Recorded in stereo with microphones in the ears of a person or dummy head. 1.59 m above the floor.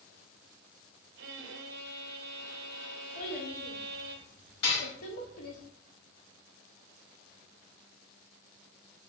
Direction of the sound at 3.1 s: 50° left (ahead or behind).